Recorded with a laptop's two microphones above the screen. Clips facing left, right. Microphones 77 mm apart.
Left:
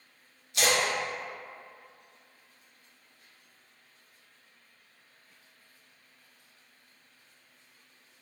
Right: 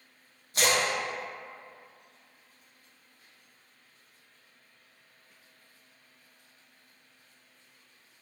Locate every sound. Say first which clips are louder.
0.5 s a splash: even; 45° right (ahead or behind), 0.7 m